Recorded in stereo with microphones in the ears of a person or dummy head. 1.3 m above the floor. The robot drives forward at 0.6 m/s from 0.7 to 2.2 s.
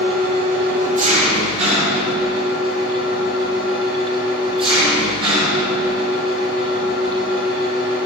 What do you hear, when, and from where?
0.0 s an engine running: 45° right (ahead or behind), 1.1 m; by 8.1 s 25° right (ahead or behind), 1.8 m